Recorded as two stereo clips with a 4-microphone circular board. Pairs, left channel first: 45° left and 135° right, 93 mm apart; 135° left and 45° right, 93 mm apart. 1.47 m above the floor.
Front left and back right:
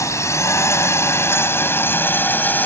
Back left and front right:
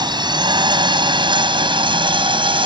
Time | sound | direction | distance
0.0 | a drone | 10° right | ?